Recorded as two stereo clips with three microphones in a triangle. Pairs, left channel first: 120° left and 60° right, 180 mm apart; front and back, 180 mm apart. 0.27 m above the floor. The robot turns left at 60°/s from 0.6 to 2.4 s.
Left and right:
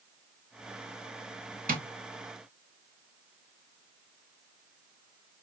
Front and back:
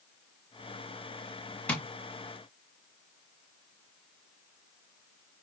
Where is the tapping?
80° right, 1.2 m; by 1.8 s 90° right, 1.2 m.